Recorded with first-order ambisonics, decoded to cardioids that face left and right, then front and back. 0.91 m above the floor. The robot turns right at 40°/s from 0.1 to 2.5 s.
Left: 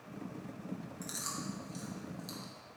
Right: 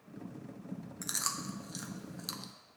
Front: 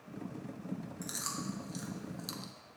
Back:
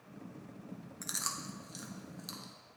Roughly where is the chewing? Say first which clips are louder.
Right 5 dB, back 2 dB; behind right.